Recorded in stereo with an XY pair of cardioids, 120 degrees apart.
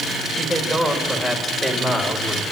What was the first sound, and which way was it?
A man speaking, 15° right.